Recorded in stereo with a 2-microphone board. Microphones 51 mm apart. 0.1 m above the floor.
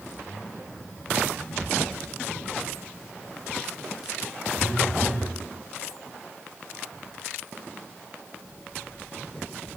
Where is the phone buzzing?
20° right (ahead or behind), 0.9 m.